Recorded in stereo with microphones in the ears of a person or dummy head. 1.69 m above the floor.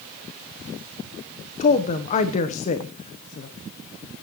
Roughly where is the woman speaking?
Left.